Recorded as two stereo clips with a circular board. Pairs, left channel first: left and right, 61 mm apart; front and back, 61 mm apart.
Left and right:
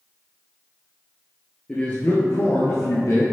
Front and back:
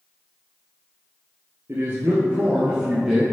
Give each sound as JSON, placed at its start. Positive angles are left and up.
{"t": 1.7, "sound": "a man speaking", "azimuth_deg": 160, "distance_m": 1.6}